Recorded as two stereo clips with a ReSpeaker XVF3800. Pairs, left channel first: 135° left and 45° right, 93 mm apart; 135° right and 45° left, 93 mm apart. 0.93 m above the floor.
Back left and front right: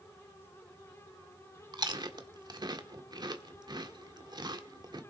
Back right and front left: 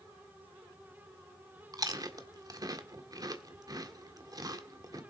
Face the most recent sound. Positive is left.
turn(degrees=-5)